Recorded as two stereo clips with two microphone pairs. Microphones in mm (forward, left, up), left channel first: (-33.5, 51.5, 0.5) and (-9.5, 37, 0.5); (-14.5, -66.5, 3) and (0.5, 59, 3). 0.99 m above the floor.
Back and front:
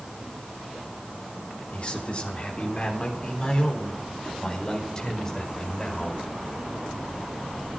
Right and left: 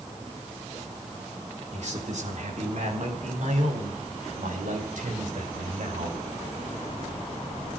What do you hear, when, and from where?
1.7 s a man speaking: 105° left, 3.5 m; by 6.2 s 80° left, 5.5 m